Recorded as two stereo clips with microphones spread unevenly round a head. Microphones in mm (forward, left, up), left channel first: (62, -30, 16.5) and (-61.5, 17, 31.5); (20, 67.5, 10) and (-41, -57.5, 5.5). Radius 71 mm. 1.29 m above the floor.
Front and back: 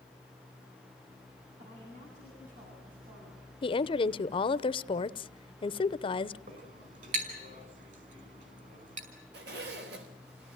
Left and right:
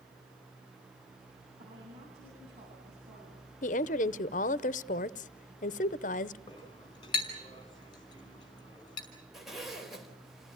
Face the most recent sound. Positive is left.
turn(degrees=155)